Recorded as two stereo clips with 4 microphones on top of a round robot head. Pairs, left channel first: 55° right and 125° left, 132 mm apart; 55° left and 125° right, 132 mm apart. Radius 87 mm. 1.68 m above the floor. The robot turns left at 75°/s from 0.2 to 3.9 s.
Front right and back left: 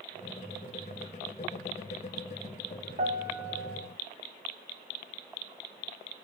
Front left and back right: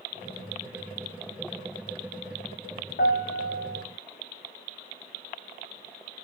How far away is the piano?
About 0.8 m.